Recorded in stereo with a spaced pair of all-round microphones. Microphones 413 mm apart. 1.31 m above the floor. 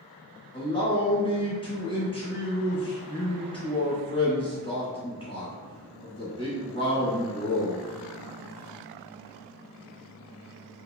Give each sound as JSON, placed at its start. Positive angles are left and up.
{"t": 0.5, "sound": "a man speaking", "side_deg": 15, "distance_m": 1.2}